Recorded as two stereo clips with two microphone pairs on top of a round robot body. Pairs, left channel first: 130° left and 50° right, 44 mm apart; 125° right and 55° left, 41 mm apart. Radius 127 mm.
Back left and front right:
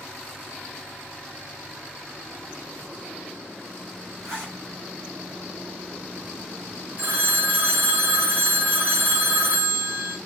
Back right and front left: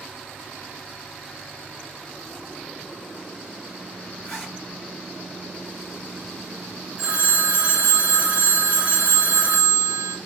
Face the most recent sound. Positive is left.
turn(degrees=-10)